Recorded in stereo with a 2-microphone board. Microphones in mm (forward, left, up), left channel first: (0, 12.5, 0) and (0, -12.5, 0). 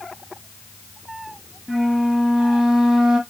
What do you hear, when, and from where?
1.7 s a flute: 30° right (ahead or behind), 1.1 m